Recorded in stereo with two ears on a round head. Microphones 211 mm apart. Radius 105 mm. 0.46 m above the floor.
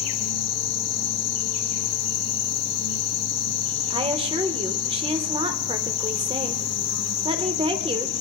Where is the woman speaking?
25° right (ahead or behind), 1.1 m.